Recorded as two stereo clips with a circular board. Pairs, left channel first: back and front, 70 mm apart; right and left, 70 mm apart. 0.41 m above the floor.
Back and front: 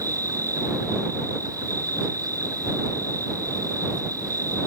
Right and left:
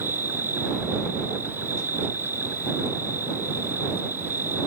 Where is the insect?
30° left.